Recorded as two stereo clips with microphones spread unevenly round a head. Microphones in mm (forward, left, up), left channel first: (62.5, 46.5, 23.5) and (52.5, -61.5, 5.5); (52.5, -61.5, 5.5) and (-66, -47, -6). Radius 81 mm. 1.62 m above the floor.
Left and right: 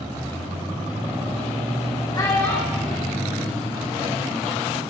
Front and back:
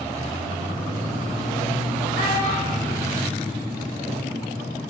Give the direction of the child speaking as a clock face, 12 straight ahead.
11 o'clock.